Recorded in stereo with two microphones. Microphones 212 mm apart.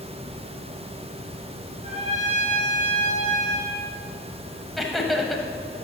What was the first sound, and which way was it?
A trumpet, 35° right (ahead or behind).